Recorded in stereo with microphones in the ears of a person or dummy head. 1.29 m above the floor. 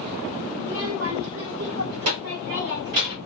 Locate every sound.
0.6 s a child speaking: 60° right (ahead or behind), 2.5 m; by 3.2 s 80° right, 4 m